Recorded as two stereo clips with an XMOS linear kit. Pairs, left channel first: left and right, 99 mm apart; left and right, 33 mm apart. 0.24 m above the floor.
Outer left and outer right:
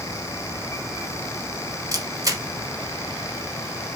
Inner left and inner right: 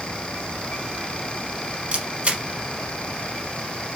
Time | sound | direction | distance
1.9 | a camera shutter | 40° right (ahead or behind) | 0.9 m